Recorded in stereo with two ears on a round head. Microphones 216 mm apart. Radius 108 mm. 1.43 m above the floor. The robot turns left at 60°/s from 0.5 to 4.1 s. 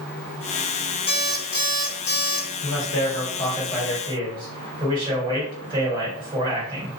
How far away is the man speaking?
About 1.5 m.